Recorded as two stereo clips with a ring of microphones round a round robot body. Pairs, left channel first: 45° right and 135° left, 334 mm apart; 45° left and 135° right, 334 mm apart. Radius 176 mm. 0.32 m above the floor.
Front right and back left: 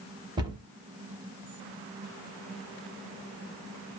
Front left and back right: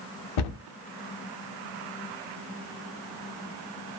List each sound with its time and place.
0.4 s a cupboard door: 60° left, 0.7 m